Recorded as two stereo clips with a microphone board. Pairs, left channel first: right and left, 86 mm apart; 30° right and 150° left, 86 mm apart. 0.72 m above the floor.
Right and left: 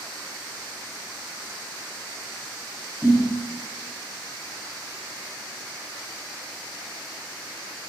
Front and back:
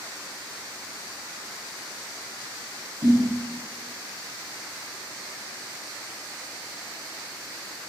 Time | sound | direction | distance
3.0 | a snare drum | 150° left | 3.5 m